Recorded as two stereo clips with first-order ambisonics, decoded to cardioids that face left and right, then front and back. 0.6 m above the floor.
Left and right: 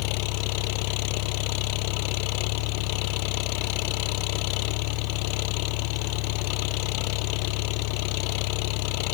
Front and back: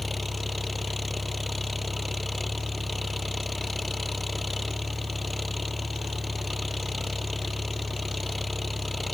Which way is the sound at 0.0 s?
85° left.